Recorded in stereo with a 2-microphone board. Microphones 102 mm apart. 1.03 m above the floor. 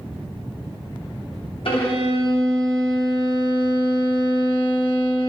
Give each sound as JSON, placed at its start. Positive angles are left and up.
{"t": 1.6, "sound": "a violin", "side_deg": 60, "distance_m": 1.1}